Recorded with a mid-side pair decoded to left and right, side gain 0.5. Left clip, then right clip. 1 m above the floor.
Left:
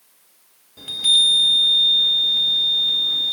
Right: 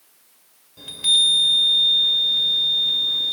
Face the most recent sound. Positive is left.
turn(degrees=20)